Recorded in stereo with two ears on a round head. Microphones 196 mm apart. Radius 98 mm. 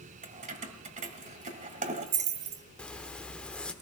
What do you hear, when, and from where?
0.2 s keys jangling: 35° right (ahead or behind), 1.5 m
2.8 s a zipper: 5° left (ahead or behind), 1.1 m